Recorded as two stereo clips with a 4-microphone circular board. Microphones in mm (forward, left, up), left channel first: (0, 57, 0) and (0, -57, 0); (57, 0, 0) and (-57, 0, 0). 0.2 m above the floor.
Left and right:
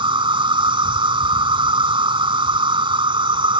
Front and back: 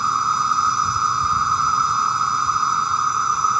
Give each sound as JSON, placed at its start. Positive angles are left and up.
{"t": 0.0, "sound": "an insect", "azimuth_deg": -95}